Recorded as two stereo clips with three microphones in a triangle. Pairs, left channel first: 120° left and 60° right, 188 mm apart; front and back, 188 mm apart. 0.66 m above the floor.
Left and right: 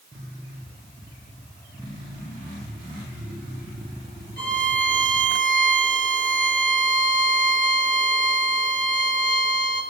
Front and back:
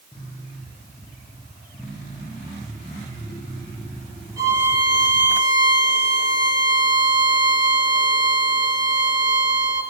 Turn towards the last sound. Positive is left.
turn(degrees=110)